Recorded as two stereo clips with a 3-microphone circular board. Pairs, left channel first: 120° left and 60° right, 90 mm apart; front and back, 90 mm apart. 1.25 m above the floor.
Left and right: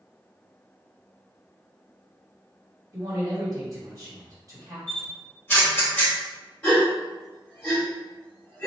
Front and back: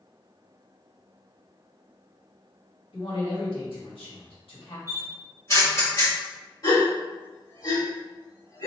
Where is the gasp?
45° left, 1.7 m.